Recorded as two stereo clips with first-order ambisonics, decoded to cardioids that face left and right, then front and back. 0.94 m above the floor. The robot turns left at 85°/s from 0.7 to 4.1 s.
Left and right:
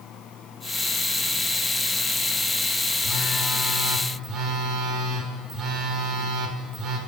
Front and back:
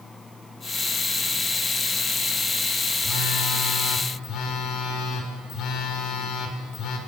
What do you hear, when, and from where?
3.0 s a phone buzzing: 55° left, 2.5 m; by 7.0 s 35° right, 2.5 m